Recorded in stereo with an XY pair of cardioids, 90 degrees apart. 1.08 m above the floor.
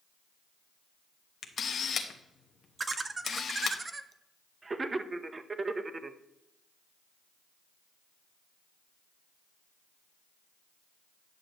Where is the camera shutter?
60° left, 1.2 m.